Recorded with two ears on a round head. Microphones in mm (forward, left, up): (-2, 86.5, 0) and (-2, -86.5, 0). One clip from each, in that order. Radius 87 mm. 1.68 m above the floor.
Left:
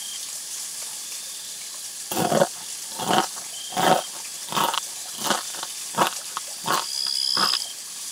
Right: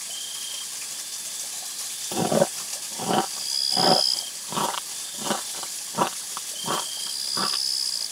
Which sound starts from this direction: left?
Chewing, at 2.1 s.